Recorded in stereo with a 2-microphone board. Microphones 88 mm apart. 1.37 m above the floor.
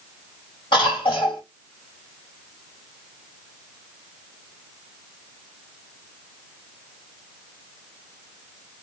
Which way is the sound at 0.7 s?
85° left.